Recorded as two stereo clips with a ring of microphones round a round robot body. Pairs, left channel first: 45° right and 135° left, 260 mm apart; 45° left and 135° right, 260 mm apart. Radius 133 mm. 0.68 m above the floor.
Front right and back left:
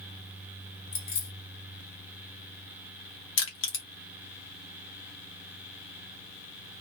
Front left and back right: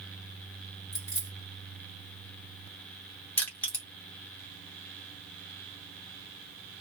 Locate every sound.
0.9 s keys jangling: 30° right, 1.6 m
3.4 s crushing: 35° right, 1.1 m